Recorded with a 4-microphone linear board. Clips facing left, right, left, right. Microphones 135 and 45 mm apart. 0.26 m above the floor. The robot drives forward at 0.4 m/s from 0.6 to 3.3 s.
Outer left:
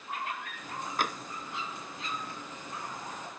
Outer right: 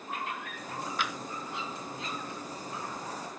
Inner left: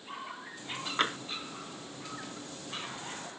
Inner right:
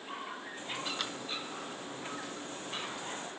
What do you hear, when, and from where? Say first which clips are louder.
1.0 s tapping: outer left 4 dB, inner left 8 dB; 45° left (ahead or behind)